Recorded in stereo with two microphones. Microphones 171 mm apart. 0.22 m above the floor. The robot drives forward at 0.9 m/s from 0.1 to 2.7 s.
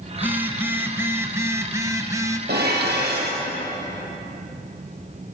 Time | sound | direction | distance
0.1 | a phone buzzing | 10° right (ahead or behind) | 2.5 m
2.5 | dishes clattering | 75° right (ahead or behind) | 6 m